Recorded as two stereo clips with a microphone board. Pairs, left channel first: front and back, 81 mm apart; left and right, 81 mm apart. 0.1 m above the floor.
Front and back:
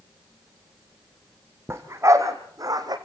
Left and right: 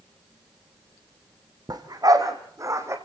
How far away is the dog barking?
About 2.5 m.